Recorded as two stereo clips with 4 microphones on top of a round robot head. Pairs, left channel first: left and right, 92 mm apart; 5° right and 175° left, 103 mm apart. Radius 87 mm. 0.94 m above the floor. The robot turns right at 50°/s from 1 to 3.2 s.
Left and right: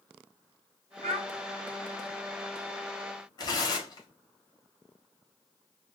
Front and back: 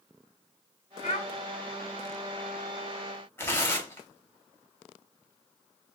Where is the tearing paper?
60° left, 1.5 m.